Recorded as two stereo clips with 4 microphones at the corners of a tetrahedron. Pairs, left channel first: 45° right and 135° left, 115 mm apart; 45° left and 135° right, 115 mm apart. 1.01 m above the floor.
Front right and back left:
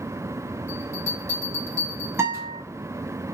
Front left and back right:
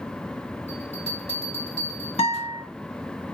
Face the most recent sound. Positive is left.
turn(degrees=70)